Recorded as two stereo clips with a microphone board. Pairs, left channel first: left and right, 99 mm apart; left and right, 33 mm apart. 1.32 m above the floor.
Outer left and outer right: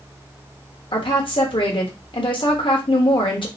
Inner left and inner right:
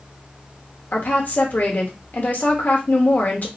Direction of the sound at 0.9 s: 60° left (ahead or behind).